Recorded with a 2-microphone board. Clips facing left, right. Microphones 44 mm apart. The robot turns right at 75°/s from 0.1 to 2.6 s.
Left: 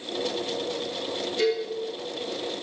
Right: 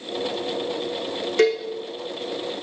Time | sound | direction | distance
1.4 | a cowbell | 55° right (ahead or behind) | 5.5 m